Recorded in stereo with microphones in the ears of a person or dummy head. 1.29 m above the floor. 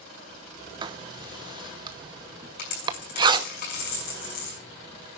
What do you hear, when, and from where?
0.8 s writing: 25° right (ahead or behind), 0.9 m
2.6 s a dropped coin: 60° left (ahead or behind), 5.5 m